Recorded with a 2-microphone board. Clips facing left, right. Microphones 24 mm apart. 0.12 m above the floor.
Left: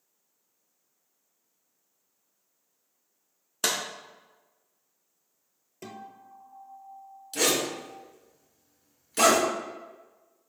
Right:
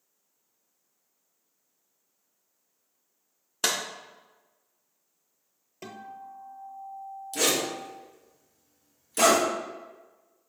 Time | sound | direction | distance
3.6 | a clap | 10° right (ahead or behind) | 0.8 m
5.8 | a guitar | 15° right (ahead or behind) | 0.6 m
7.3 | a zipper | 20° left (ahead or behind) | 1.2 m